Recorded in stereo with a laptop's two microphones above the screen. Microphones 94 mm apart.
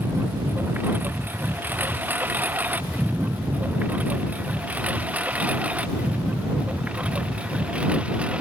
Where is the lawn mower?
20° right (ahead or behind); by 8.4 s 10° right (ahead or behind).